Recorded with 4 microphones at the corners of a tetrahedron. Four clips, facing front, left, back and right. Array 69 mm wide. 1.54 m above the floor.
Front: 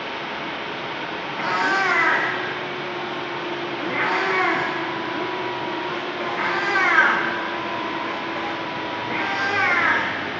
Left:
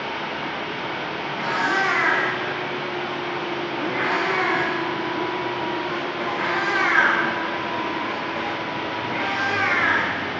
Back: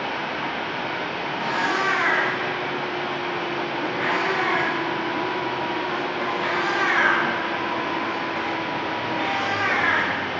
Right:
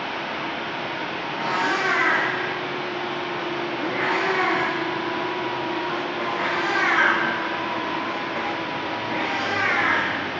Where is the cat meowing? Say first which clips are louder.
Left 1 dB, front 3 dB; straight ahead, 4 m.